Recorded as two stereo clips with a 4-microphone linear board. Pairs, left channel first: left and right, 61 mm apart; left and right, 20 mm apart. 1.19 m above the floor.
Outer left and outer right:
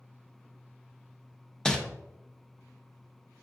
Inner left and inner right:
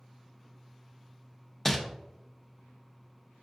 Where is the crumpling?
10° left (ahead or behind), 0.6 m.